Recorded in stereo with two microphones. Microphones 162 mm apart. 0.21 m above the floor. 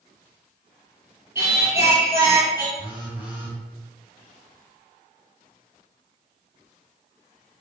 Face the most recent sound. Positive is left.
turn(degrees=-10)  # may be behind; listen again after turning